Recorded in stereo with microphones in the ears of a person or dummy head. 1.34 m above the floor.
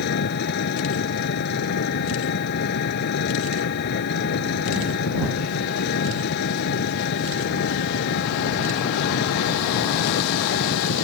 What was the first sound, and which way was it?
An engine running, 55° left (ahead or behind).